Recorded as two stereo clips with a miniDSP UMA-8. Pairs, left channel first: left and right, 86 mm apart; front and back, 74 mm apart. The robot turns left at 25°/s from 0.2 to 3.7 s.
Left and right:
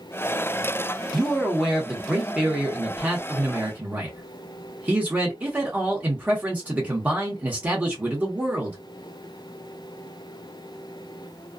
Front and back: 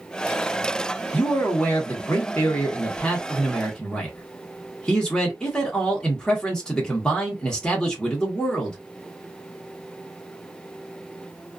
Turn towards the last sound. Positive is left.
turn(degrees=-60)